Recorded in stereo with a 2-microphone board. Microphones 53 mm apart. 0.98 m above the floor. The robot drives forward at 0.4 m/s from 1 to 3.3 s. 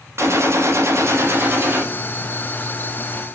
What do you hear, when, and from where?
0.2 s a gunshot: 55° right (ahead or behind), 0.6 m; by 1.9 s 40° right (ahead or behind), 0.7 m